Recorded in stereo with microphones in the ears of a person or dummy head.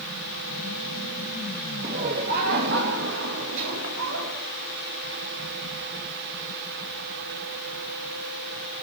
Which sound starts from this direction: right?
Laughter, at 1.8 s.